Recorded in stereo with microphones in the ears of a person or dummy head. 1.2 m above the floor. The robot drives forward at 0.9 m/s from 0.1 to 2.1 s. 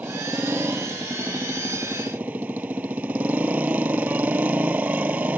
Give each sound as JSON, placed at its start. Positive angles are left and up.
{"t": 0.0, "sound": "a motorcycle", "side_deg": -5}